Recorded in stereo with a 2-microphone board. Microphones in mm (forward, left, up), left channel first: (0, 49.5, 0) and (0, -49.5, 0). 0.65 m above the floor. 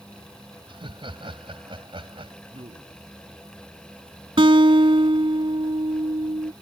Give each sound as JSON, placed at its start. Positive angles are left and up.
{"t": 0.7, "sound": "laughter", "side_deg": -60}
{"t": 2.5, "sound": "a man speaking", "side_deg": -70}
{"t": 4.4, "sound": "a guitar", "side_deg": -65}